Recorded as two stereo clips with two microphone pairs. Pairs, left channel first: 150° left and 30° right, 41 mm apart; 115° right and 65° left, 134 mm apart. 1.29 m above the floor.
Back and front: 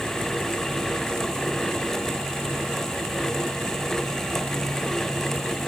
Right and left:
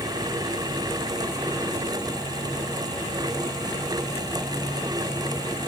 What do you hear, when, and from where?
Only background noise.